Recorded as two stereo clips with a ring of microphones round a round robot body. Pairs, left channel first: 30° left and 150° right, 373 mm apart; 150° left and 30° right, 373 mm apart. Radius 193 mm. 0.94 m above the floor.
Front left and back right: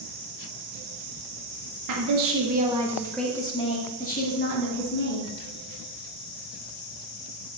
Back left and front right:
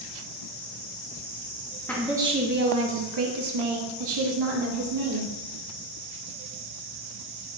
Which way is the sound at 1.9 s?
125° right.